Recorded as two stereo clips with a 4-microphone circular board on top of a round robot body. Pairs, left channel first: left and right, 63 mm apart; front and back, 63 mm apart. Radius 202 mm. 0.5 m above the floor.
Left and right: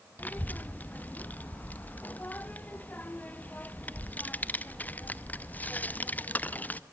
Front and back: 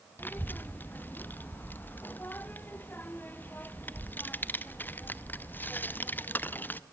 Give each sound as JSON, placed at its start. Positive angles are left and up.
{"t": 0.2, "sound": "a child speaking", "azimuth_deg": 40, "distance_m": 1.0}